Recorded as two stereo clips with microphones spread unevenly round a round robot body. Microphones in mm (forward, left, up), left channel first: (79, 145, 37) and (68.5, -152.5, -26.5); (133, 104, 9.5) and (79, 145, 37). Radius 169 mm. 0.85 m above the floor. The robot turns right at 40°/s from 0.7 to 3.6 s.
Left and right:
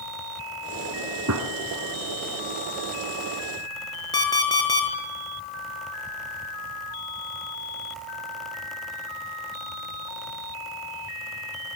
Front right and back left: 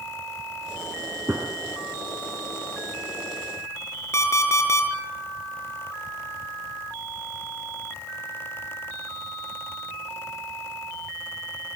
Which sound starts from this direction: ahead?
An alarm clock, at 4.1 s.